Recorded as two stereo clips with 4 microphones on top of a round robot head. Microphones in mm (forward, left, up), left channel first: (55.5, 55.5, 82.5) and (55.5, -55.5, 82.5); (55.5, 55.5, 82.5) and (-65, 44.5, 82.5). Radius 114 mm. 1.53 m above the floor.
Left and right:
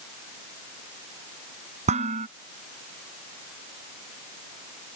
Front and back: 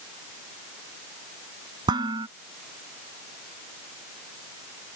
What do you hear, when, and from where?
1.9 s dishes clattering: 115° right